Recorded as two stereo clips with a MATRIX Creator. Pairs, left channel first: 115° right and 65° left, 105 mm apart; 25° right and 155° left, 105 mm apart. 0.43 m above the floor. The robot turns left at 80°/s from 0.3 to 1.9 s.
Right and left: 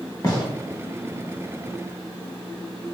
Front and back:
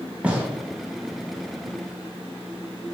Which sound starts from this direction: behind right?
A gunshot, at 0.2 s.